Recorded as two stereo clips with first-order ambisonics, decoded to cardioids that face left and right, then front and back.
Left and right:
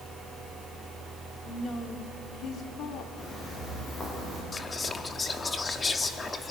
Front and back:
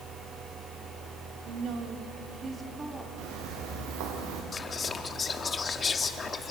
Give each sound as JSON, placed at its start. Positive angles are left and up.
{"t": 1.4, "sound": "a woman speaking", "azimuth_deg": 165, "distance_m": 1.7}
{"t": 3.2, "sound": "footsteps", "azimuth_deg": 165, "distance_m": 6.5}
{"t": 4.5, "sound": "whispering", "azimuth_deg": 35, "distance_m": 1.0}